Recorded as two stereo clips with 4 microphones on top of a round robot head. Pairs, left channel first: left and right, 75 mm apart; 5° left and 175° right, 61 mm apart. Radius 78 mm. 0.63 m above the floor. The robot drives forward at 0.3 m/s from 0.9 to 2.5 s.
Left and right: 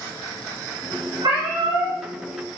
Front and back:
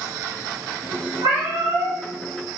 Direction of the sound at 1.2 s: 130° right.